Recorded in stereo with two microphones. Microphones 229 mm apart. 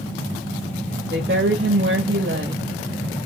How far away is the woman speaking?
About 1.0 m.